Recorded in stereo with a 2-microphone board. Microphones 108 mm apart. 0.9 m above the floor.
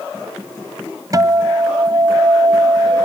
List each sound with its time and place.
1.1 s a guitar: 35° right (ahead or behind)